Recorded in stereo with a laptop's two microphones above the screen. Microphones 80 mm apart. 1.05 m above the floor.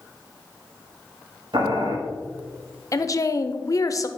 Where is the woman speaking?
45° left (ahead or behind), 0.5 m.